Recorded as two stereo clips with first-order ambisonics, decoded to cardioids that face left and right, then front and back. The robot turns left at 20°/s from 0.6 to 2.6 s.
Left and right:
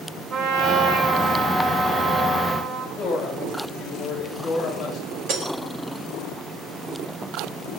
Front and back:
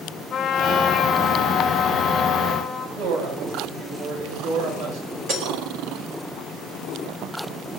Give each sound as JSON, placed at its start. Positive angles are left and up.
{"t": 0.3, "sound": "a trumpet", "azimuth_deg": -60, "distance_m": 9.0}
{"t": 3.0, "sound": "a woman speaking", "azimuth_deg": 170, "distance_m": 9.0}
{"t": 5.3, "sound": "breaking glass", "azimuth_deg": -130, "distance_m": 4.5}